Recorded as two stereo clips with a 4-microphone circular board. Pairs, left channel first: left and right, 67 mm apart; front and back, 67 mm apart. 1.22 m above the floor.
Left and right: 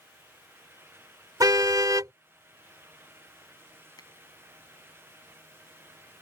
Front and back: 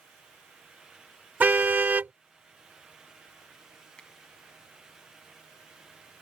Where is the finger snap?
75° left.